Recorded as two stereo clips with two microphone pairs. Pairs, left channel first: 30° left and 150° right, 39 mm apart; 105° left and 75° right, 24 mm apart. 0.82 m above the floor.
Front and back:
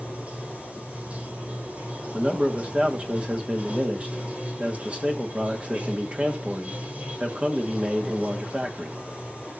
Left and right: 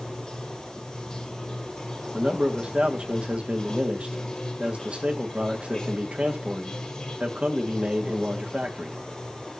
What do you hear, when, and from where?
0.0 s running water: 155° left, 2.5 m
2.1 s a man speaking: 95° right, 1.5 m